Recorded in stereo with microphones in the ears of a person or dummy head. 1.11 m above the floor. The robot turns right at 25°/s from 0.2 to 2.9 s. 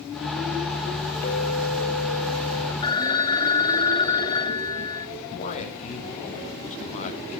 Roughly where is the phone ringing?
Left.